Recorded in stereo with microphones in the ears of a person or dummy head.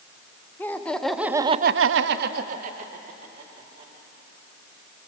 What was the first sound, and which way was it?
Laughter, 15° left (ahead or behind).